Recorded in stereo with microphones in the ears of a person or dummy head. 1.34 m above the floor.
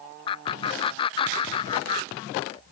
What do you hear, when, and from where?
0.3 s laughter: 30° left (ahead or behind), 0.6 m